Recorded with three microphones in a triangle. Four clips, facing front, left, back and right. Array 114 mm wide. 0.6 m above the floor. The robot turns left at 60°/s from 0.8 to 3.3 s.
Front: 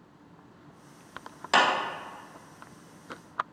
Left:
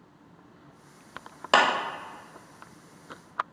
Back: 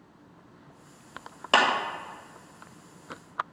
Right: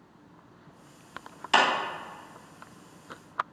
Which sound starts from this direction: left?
A clap, at 1.5 s.